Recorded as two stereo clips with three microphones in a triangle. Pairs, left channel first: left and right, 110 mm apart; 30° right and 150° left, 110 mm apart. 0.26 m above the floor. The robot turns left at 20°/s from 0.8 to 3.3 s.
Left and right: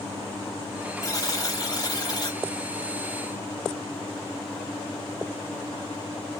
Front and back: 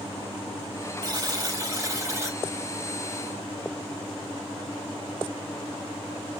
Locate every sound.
1.0 s a buzzer: 130° left, 0.8 m; by 2.4 s 100° left, 0.8 m